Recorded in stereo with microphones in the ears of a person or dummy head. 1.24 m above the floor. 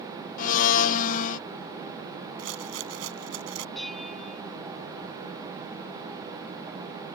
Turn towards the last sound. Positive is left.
turn(degrees=5)  # may be behind; listen again after turning